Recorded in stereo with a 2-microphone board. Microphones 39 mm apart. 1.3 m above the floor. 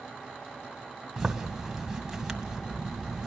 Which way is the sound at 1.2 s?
10° right (ahead or behind).